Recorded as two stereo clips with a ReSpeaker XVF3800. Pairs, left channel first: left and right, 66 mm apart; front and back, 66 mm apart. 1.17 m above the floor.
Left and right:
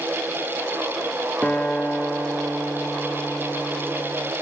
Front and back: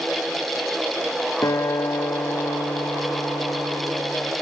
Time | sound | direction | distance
1.4 | a guitar | 25° left | 1.2 m